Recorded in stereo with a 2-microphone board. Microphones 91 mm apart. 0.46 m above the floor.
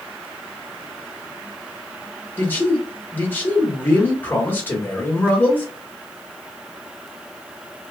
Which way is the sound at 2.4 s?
20° left (ahead or behind).